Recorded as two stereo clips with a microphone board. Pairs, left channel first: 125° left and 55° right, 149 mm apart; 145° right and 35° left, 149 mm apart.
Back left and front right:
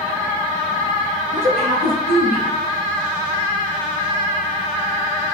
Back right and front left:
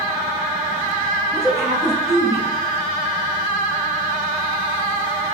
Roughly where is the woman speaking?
Ahead right.